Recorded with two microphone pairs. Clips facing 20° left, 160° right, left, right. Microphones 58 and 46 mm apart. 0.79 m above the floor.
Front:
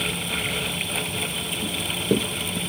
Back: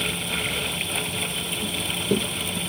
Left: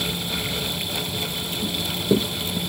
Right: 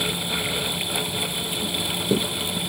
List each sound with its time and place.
1.6 s running footsteps: 20° left, 0.7 m